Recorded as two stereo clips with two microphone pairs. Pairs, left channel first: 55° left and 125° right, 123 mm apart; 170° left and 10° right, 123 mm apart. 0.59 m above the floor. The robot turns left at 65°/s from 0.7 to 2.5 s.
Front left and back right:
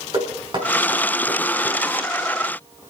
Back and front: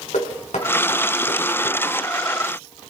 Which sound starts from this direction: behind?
Knocking, at 0.1 s.